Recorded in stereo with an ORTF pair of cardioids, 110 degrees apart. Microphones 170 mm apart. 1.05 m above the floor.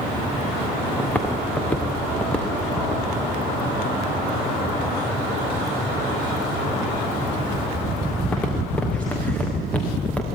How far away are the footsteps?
About 4.5 m.